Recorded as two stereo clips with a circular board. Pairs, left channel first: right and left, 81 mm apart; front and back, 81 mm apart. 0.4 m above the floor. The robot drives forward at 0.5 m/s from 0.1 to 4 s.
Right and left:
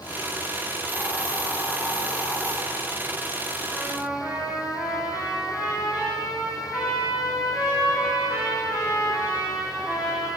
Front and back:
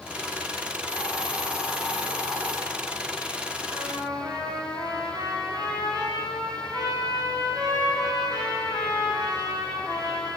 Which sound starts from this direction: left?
A hiss, at 0.9 s.